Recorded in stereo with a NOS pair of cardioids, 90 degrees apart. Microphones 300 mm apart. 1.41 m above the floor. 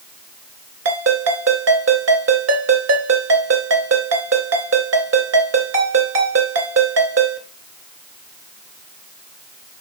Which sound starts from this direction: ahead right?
A ringtone, at 0.8 s.